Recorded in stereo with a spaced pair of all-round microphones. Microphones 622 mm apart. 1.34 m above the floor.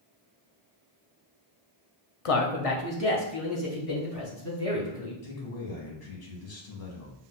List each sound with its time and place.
2.2 s a man speaking: 60° left (ahead or behind), 0.5 m
5.2 s a man speaking: 70° left (ahead or behind), 1.0 m